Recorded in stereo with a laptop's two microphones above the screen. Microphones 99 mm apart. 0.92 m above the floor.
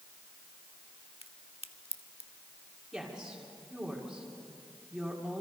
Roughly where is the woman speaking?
Centre.